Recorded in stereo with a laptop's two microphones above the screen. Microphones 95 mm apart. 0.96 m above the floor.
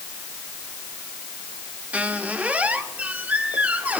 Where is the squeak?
15° right (ahead or behind), 1.2 m.